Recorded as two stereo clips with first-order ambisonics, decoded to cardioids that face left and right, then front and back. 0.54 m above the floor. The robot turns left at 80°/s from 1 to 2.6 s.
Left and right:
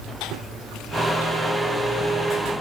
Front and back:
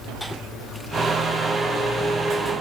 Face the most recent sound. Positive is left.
No sound to turn to.